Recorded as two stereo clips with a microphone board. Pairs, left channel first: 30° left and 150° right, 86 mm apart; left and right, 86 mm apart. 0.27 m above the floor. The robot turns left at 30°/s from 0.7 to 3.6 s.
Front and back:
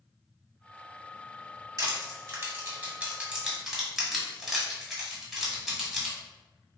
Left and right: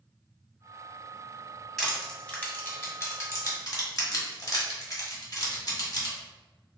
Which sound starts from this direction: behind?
Crushing, at 1.8 s.